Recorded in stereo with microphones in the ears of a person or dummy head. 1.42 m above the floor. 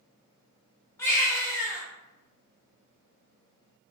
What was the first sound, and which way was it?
A baby crying, 10° left (ahead or behind).